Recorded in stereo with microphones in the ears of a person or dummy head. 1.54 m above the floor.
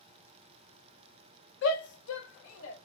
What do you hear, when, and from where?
1.6 s a shout: 65° left (ahead or behind), 0.9 m; by 2.8 s 80° left, 1.5 m